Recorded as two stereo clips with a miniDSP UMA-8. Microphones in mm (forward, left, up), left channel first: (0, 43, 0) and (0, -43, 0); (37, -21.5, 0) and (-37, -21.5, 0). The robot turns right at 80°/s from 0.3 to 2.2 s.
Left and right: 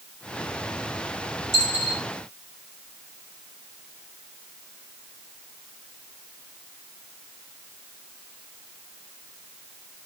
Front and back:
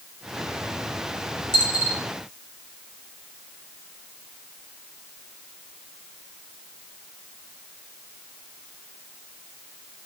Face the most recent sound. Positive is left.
turn(degrees=55)